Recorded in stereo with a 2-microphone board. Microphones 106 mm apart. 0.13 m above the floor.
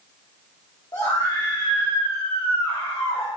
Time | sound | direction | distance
0.9 | a scream | 40° left (ahead or behind) | 3 m